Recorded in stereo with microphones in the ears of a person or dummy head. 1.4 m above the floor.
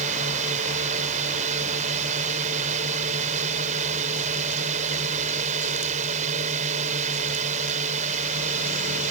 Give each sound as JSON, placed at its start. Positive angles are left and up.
{"t": 0.0, "sound": "a drone", "side_deg": -40}